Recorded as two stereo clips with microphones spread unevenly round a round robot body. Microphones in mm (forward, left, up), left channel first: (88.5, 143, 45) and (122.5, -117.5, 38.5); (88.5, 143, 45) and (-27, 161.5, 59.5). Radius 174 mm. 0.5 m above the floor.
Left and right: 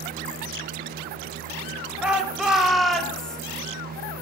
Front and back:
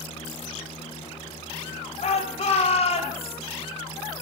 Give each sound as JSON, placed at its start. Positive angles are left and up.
{"t": 2.0, "sound": "a shout", "azimuth_deg": 5, "distance_m": 3.5}